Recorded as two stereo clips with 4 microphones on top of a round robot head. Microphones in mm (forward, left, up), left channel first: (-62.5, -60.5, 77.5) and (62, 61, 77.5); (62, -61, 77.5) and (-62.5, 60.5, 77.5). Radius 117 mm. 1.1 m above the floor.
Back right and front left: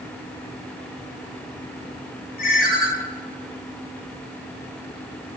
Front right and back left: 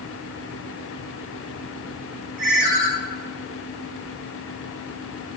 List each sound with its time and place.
2.4 s a ringtone: 175° right, 5 m